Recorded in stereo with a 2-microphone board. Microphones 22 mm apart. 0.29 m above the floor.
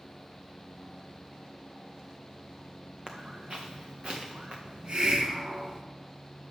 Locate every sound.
3.1 s footsteps: 45° right (ahead or behind), 1.0 m; by 4.5 s 60° right (ahead or behind), 1.9 m
4.7 s a hiss: 50° right (ahead or behind), 1.0 m